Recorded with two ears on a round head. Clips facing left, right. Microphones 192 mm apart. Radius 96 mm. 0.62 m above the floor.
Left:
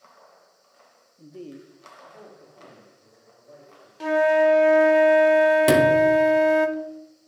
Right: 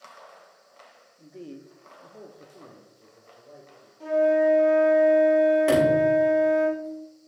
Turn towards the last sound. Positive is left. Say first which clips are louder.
# left 3 dB
turn(degrees=50)  # may be behind; listen again after turning